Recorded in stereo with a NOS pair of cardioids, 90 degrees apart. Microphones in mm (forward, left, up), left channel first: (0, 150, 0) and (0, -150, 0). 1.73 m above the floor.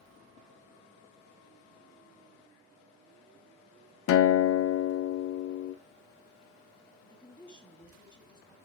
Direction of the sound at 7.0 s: 15° left.